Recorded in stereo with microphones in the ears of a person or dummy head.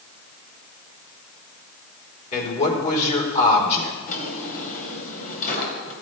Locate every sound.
2.3 s a man speaking: 40° left (ahead or behind), 3.5 m
4.1 s a drawer: 45° left (ahead or behind), 3 m